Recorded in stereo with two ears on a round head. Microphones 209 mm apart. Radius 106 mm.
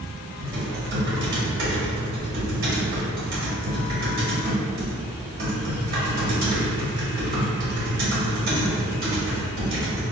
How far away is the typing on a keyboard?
About 1.0 m.